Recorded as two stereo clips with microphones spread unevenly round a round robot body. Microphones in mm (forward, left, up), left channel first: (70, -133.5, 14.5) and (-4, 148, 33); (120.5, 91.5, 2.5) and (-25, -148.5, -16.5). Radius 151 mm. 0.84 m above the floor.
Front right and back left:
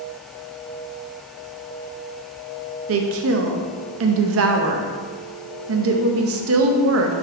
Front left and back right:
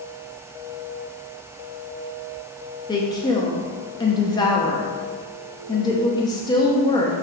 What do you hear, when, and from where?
2.9 s a woman speaking: 135° left, 0.7 m